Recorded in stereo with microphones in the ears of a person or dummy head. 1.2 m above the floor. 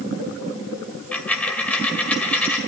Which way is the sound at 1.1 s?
10° left (ahead or behind).